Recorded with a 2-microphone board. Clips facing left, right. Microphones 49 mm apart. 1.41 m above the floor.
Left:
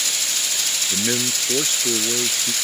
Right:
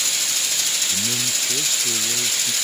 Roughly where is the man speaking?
Left.